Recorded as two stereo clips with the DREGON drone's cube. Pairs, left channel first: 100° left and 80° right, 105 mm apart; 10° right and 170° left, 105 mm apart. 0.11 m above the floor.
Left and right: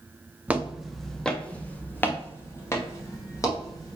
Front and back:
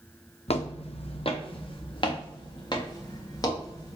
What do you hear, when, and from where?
0.5 s footsteps: 5° right, 1.1 m; by 4.0 s 40° left, 3 m